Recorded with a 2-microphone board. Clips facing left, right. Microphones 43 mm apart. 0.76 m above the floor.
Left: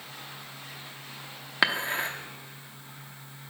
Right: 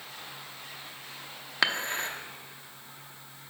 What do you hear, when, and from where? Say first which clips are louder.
1.6 s dishes clattering: left 2 dB; 10° left (ahead or behind), 0.7 m